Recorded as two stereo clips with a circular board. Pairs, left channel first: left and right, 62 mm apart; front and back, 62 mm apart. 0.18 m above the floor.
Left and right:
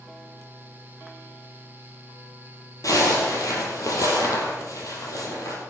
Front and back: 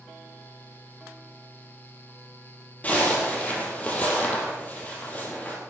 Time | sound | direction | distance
2.8 | a zipper | 65° left | 3.5 m